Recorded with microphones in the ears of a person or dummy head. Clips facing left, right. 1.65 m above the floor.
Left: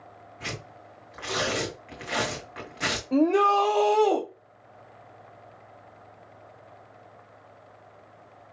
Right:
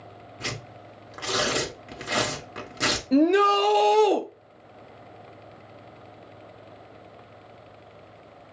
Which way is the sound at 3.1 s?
15° right (ahead or behind).